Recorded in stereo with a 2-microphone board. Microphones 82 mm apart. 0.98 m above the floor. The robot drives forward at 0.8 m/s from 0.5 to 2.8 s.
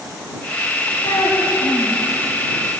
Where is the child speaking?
60° left (ahead or behind), 5.5 m; by 2.0 s 55° left (ahead or behind), 6 m.